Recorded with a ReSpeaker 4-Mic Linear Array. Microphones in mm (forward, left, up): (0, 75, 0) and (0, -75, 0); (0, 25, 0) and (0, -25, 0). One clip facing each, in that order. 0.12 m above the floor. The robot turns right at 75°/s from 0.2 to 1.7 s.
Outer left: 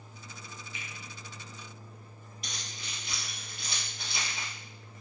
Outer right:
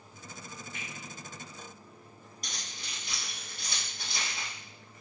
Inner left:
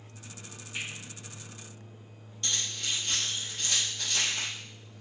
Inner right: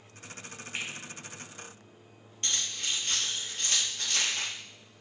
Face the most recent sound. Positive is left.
turn(degrees=-45)  # may be behind; listen again after turning